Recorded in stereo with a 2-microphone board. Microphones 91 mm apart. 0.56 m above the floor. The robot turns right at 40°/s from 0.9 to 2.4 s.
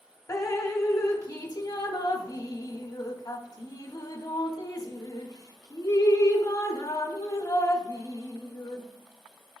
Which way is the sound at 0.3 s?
35° left (ahead or behind).